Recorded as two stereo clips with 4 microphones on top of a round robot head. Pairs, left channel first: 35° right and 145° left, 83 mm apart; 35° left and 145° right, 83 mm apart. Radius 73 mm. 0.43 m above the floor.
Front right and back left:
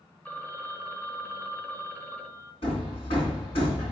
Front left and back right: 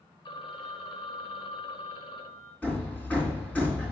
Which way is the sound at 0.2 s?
40° left.